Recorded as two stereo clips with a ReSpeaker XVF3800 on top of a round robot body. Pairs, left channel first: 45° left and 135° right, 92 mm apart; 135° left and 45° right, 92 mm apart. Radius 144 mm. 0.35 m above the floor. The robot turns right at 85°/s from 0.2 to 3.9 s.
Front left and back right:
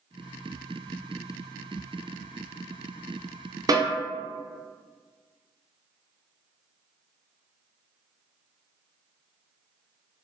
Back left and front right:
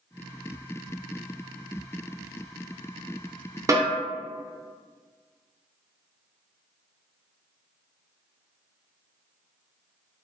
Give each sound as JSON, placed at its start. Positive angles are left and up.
{"t": 3.7, "sound": "a snare drum", "azimuth_deg": -95, "distance_m": 0.7}